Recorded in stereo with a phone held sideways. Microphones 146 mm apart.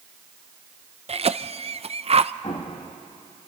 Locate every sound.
1.1 s a cough: 45° right (ahead or behind), 0.6 m
2.4 s an explosion: 45° left (ahead or behind), 1.6 m